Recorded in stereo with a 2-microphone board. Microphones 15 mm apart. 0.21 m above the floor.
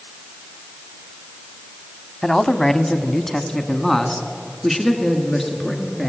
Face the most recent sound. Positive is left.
turn(degrees=10)  # may be behind; listen again after turning